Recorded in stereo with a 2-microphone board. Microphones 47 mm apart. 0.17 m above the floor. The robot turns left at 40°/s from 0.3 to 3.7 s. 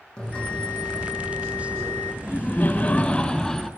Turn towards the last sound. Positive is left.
turn(degrees=0)